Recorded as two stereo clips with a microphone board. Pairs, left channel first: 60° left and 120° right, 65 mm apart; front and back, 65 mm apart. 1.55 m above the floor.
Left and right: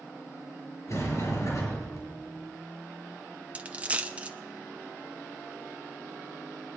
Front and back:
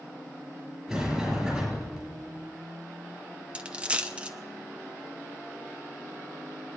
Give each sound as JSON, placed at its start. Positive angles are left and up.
{"t": 0.9, "sound": "a sliding door", "azimuth_deg": 95, "distance_m": 6.0}
{"t": 3.5, "sound": "a dropped coin", "azimuth_deg": -145, "distance_m": 0.8}